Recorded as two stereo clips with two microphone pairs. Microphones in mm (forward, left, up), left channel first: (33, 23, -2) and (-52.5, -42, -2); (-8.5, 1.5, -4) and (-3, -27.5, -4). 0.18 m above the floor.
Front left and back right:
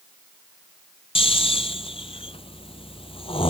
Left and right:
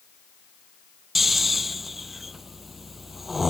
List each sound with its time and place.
1.1 s snoring: 10° left